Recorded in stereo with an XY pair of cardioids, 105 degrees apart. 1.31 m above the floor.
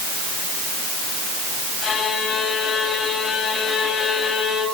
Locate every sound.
1.8 s a violin: 60° left, 8.5 m